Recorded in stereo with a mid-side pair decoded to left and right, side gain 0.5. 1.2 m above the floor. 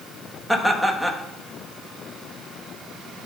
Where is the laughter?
Straight ahead, 1.7 m.